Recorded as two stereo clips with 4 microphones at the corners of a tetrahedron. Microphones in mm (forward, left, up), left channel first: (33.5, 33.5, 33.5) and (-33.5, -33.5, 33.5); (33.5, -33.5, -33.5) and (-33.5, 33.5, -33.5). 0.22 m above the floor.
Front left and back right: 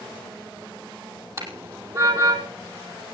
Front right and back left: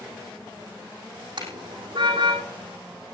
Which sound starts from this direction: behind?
A car horn, at 1.4 s.